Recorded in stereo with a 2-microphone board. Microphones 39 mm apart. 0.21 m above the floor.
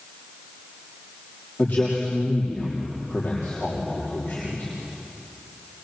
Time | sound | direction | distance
1.6 | a man speaking | 50° left (ahead or behind) | 6 m